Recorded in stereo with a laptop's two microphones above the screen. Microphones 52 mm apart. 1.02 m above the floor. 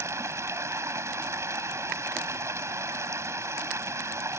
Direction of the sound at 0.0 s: 75° right (ahead or behind).